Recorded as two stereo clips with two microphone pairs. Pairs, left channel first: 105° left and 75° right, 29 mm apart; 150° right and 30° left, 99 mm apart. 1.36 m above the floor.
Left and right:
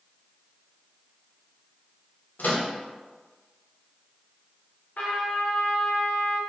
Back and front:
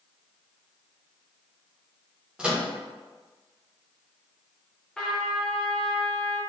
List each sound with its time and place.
2.4 s a microwave: 110° left, 0.9 m
5.0 s a trumpet: 125° left, 0.8 m